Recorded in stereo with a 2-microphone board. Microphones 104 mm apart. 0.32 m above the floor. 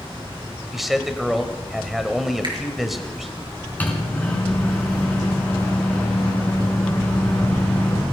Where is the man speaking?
Centre (ahead or behind), 1.2 m.